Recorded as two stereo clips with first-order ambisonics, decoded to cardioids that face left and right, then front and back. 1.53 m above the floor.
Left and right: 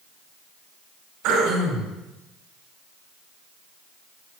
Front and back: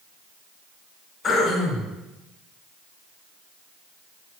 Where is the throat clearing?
70° right, 3 m.